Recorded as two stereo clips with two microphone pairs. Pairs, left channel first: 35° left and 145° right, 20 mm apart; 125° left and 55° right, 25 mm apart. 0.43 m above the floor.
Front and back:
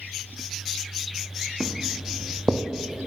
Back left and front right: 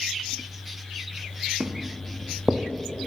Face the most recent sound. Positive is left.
turn(degrees=-120)